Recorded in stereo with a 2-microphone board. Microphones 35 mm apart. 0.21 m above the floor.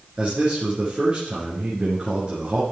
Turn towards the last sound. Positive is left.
turn(degrees=-30)  # may be behind; listen again after turning